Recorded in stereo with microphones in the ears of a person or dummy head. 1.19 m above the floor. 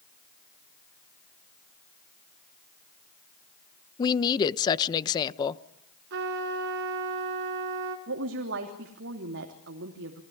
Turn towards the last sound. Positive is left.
turn(degrees=-55)  # may be behind; listen again after turning